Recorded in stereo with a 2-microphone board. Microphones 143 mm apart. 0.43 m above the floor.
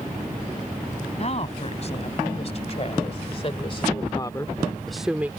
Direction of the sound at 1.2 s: 45° left (ahead or behind).